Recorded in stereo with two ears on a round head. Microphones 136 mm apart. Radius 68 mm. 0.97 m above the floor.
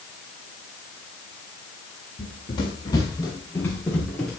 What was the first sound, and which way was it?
Running footsteps, 40° left (ahead or behind).